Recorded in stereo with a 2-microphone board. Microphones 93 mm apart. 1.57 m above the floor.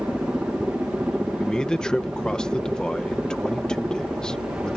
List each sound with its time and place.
0.0 s a helicopter: 10° right (ahead or behind)
1.4 s a man speaking: 10° left (ahead or behind)